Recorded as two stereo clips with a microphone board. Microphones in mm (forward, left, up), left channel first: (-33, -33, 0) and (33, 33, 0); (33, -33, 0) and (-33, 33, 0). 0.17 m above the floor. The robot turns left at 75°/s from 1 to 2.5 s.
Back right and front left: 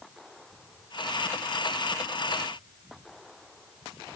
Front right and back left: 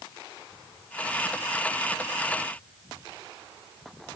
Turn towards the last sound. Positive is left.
No sound to turn to.